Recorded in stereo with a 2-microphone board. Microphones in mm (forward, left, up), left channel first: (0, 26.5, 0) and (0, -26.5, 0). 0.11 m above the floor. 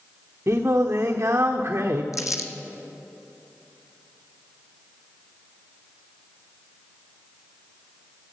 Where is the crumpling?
75° left (ahead or behind), 1.2 m.